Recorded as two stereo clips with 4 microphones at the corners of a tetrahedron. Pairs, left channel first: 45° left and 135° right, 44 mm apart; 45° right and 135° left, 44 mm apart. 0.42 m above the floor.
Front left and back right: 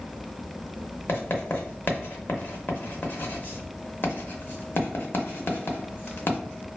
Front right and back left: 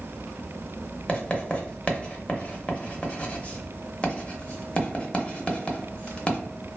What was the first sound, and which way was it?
Writing, 15° left.